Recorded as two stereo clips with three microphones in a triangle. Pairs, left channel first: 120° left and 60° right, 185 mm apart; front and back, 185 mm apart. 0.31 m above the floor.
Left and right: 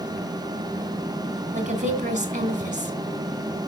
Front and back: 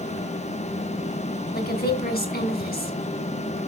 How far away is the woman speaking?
About 2.5 m.